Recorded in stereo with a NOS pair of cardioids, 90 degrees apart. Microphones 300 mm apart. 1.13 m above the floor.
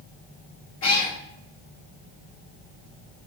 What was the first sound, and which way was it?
A cat meowing, 60° left.